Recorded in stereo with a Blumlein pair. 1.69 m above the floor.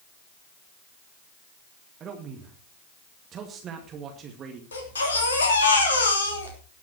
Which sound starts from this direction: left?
A baby crying, at 4.7 s.